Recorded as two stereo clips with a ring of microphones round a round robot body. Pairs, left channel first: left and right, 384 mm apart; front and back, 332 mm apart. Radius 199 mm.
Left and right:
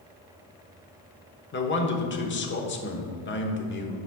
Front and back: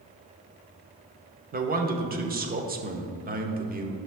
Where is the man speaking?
130° left, 1.2 m.